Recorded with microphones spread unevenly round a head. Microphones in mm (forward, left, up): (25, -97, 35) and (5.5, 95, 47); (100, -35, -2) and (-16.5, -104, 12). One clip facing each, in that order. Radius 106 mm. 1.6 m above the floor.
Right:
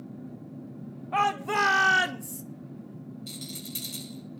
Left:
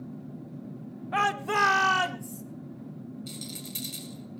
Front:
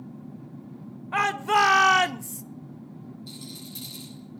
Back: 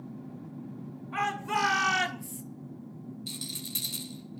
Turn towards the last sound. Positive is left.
turn(degrees=-170)